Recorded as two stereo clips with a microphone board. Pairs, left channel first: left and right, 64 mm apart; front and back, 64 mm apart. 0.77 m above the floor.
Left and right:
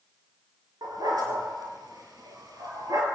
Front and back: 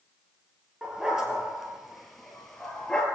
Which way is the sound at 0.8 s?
100° right.